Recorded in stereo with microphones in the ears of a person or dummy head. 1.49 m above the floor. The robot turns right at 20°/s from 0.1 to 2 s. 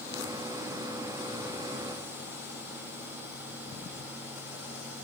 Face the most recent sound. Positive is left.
No sound to turn to.